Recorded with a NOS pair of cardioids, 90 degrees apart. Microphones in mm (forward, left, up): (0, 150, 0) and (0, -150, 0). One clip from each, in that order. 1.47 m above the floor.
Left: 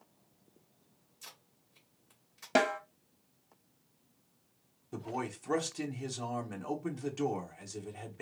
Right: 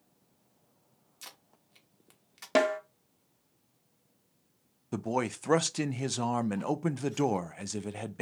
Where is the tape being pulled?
70° right, 1.2 m.